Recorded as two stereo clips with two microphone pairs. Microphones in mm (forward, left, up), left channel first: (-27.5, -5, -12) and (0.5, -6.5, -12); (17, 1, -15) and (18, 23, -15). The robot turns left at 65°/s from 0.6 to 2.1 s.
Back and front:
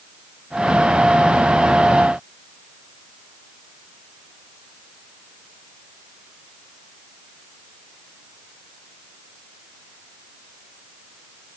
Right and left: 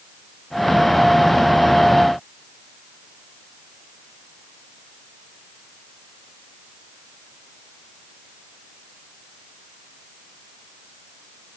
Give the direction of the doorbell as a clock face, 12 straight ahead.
No doorbell in this recording.